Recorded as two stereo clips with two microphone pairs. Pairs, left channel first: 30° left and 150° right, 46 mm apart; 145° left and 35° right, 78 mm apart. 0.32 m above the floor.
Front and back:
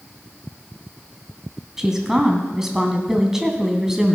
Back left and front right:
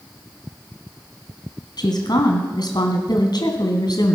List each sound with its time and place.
1.8 s a woman speaking: 130° left, 2.5 m